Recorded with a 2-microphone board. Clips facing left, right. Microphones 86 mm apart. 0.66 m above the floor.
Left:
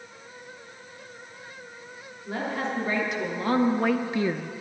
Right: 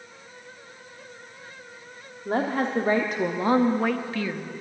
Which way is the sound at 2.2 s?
55° right (ahead or behind).